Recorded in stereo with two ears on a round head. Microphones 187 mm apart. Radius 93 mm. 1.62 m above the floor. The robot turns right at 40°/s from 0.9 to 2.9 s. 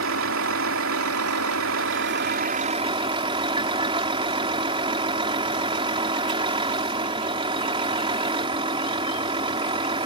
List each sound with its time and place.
0.0 s a vehicle: 105° right; by 10.1 s 25° right